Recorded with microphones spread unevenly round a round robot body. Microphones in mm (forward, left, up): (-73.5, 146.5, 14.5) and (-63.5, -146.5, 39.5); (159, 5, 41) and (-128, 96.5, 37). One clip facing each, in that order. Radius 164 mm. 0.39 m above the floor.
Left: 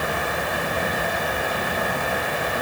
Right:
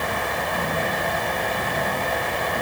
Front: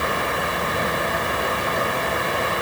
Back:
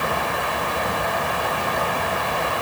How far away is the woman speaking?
I don't hear a woman speaking.